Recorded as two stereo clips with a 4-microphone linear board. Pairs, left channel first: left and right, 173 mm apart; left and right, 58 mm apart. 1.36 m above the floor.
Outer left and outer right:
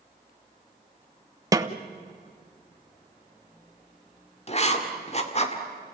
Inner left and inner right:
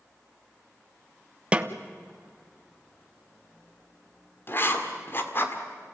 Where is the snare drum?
20° right (ahead or behind), 1.0 m.